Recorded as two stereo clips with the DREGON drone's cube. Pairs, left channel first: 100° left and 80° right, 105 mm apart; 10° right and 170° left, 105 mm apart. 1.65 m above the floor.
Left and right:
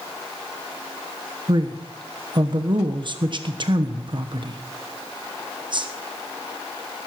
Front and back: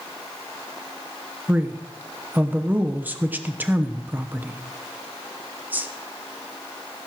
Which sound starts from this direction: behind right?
A man speaking, at 1.5 s.